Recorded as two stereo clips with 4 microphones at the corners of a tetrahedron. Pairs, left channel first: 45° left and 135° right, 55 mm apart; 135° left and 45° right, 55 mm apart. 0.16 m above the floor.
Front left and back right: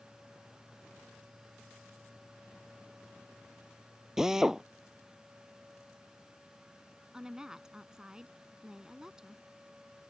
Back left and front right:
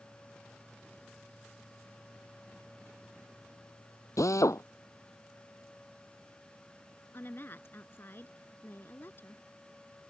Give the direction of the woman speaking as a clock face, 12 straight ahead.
7 o'clock.